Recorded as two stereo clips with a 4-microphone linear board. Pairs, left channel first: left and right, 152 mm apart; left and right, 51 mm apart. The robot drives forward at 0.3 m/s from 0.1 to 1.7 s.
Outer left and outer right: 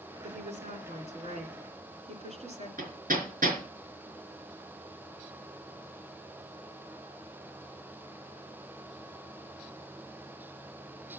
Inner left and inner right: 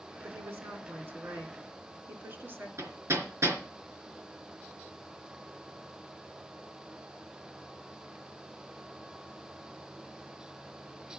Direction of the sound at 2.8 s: 80° right.